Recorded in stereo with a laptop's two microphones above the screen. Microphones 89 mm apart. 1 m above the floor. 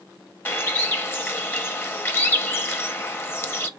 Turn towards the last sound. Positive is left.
turn(degrees=25)  # may be behind; listen again after turning